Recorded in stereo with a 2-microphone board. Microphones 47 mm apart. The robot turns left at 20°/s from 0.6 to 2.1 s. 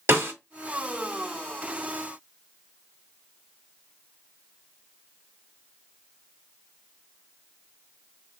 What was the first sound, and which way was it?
A snare drum, 70° right (ahead or behind).